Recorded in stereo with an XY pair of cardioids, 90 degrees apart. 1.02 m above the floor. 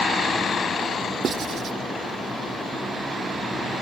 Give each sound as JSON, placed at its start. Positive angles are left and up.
{"t": 1.2, "sound": "writing", "azimuth_deg": -65}